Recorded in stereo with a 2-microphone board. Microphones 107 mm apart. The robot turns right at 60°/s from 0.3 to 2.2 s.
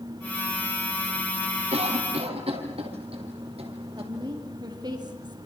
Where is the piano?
No piano in this recording.